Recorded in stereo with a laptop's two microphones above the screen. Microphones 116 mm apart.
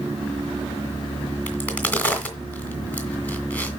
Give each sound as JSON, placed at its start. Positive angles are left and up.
{"t": 1.5, "sound": "a crack", "side_deg": 15, "distance_m": 2.0}